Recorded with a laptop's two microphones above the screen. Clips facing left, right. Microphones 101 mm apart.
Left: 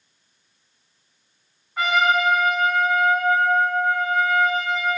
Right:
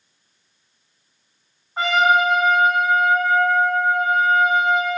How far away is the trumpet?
About 4.5 m.